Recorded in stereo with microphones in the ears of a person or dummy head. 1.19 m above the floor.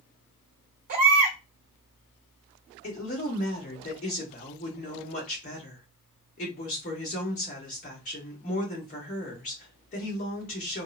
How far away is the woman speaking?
About 1.1 m.